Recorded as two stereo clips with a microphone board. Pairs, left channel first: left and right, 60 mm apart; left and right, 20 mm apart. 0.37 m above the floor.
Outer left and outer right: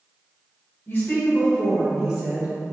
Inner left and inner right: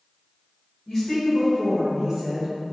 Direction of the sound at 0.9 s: 40° left (ahead or behind).